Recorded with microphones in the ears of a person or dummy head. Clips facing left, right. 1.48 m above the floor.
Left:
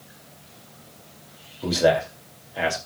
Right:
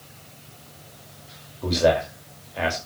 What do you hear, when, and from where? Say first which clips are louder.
1.6 s a man speaking: even; 5° left (ahead or behind), 3 m